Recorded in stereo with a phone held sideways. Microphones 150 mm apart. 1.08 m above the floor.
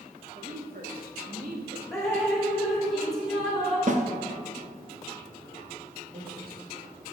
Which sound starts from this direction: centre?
Dripping, at 1.9 s.